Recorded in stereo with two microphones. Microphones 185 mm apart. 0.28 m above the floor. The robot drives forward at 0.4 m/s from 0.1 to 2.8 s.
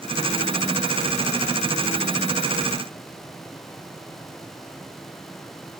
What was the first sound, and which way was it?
Only background noise.